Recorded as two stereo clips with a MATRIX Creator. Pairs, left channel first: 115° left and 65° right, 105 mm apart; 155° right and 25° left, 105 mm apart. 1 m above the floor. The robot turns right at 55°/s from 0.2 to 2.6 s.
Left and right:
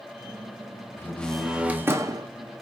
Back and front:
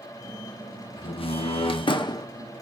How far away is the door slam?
About 0.6 m.